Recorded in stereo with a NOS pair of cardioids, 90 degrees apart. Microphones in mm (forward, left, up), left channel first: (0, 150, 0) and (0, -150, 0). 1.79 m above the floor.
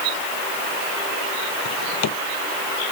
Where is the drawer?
65° left.